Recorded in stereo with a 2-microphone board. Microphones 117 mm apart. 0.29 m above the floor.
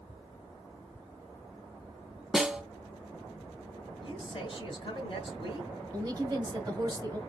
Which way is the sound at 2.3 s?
5° right (ahead or behind).